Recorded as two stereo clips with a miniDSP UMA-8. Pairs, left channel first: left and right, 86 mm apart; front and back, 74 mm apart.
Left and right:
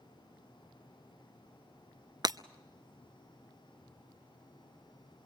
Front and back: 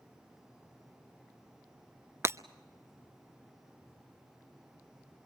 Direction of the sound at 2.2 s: 125° right.